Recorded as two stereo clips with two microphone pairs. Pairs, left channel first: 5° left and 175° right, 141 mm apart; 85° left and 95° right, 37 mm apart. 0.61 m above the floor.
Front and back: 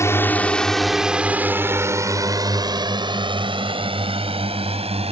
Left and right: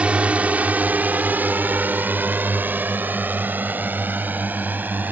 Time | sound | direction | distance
0.0 | a drone | 60° right | ?